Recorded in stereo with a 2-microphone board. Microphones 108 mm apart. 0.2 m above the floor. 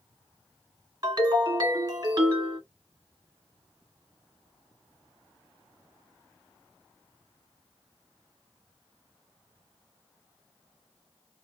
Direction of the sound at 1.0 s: 40° right (ahead or behind).